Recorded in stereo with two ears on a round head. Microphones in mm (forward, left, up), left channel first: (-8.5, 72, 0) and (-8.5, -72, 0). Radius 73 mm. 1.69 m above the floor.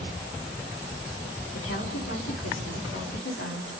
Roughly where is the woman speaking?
Left.